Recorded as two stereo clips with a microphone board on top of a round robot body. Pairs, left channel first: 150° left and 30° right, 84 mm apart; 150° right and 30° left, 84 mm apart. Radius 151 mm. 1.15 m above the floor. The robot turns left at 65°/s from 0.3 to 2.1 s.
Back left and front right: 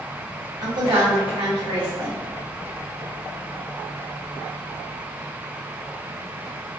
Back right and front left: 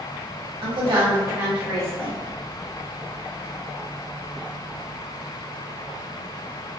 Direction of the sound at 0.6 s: 15° left.